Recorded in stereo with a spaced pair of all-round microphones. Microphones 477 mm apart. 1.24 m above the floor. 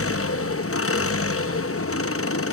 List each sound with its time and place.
0.0 s an engine running: 30° left (ahead or behind), 0.8 m